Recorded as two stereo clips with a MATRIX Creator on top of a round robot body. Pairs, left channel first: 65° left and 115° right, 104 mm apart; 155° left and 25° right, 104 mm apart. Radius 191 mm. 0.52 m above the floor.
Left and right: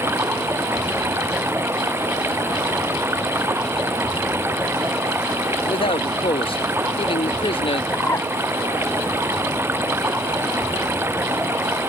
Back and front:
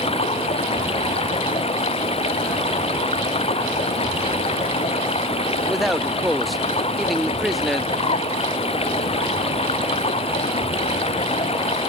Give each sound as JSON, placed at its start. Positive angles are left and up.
{"t": 0.0, "sound": "running water", "azimuth_deg": 180}
{"t": 5.7, "sound": "a man speaking", "azimuth_deg": 70}
{"t": 7.9, "sound": "a bird", "azimuth_deg": 135}